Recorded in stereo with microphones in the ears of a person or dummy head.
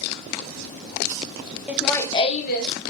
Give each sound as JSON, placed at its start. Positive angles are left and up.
{"t": 1.7, "sound": "laughter", "side_deg": -10, "distance_m": 0.6}